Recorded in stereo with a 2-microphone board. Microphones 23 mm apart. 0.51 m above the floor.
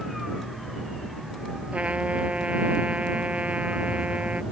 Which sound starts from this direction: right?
A trumpet, at 1.7 s.